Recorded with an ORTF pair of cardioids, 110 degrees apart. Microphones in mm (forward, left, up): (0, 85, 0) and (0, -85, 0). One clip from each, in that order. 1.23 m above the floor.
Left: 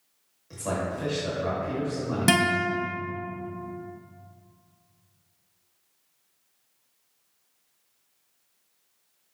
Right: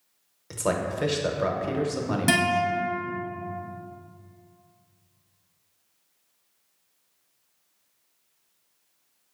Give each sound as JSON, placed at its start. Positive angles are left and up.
{"t": 0.5, "sound": "a man speaking", "azimuth_deg": -60, "distance_m": 0.7}
{"t": 2.3, "sound": "a guitar", "azimuth_deg": 15, "distance_m": 0.5}